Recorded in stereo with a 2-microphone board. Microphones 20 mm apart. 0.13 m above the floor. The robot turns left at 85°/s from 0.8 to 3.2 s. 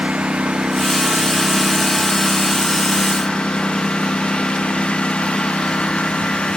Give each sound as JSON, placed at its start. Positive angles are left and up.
{"t": 0.0, "sound": "a lawn mower", "azimuth_deg": -95}